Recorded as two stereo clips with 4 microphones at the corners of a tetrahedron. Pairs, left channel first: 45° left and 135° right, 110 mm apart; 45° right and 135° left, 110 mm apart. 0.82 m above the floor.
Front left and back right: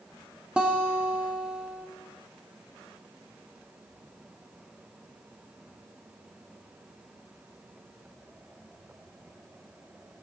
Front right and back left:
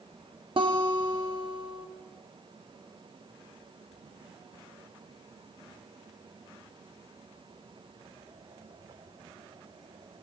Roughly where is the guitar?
Behind left.